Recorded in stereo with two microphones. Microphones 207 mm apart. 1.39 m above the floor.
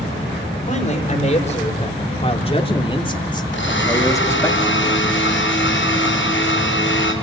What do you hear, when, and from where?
0.7 s a man speaking: 35° left (ahead or behind), 4.5 m; by 4.5 s 10° left (ahead or behind), 2.5 m
3.5 s a blender: 70° left (ahead or behind), 8.5 m